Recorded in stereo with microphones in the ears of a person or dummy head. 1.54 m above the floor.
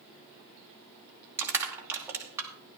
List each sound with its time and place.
1.4 s crushing: 15° right (ahead or behind), 2 m